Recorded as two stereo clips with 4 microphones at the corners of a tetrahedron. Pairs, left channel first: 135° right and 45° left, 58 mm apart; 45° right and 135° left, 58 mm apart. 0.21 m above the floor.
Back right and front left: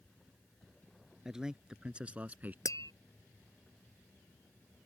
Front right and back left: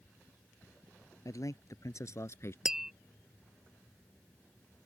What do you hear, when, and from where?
1.2 s a man speaking: 35° right; by 2.5 s 10° right
2.6 s tapping: 145° right